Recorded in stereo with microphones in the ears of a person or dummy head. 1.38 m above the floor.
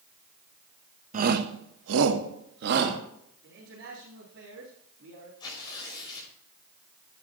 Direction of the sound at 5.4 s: 25° left (ahead or behind).